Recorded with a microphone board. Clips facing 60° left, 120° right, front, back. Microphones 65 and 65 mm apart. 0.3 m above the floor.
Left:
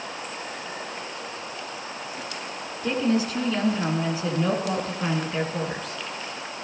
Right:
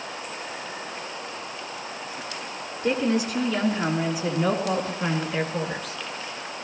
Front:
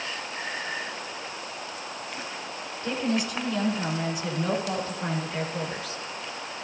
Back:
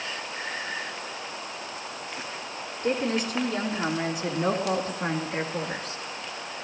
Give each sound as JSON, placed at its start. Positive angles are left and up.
{"t": 2.8, "sound": "a woman speaking", "azimuth_deg": 180, "distance_m": 4.0}